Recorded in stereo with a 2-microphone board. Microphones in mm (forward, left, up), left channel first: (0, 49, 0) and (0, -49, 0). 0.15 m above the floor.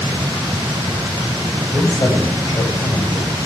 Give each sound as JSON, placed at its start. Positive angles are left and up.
{"t": 1.7, "sound": "a man speaking", "side_deg": 35, "distance_m": 6.5}